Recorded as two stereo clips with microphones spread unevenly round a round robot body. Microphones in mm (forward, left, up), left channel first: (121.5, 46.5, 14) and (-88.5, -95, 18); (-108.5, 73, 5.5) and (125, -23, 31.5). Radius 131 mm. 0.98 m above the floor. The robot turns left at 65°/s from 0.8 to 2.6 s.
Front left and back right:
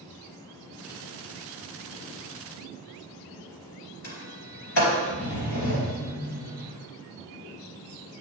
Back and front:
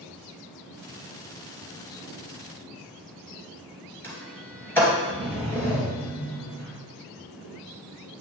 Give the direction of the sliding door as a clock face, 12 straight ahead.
10 o'clock.